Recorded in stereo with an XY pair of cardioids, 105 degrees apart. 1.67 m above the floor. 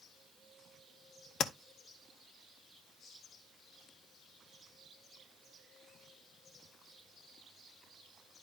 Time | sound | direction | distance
1.4 | tapping | 60° left | 0.9 m